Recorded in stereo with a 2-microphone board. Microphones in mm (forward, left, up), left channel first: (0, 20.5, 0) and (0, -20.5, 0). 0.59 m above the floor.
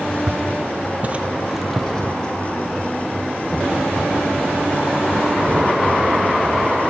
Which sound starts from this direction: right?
Footsteps, at 0.3 s.